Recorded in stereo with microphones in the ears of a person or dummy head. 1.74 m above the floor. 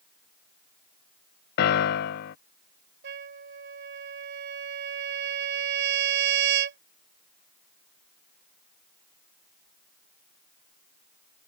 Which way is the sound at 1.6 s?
50° left (ahead or behind).